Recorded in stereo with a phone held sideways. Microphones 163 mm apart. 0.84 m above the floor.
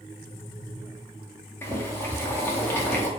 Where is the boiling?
15° left (ahead or behind), 0.5 m.